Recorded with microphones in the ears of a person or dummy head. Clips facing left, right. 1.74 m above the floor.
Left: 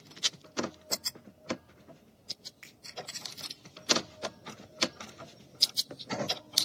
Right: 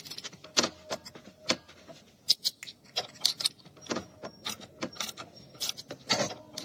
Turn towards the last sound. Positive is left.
turn(degrees=-45)  # may be behind; listen again after turning